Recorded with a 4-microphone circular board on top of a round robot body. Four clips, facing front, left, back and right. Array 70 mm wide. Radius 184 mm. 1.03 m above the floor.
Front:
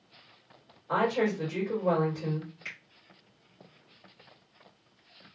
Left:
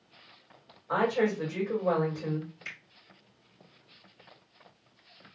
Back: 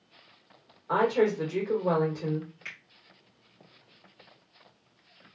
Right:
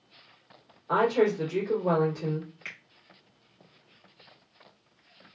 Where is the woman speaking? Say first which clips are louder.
Right 3 dB, back 3 dB; 135° right, 2.5 m.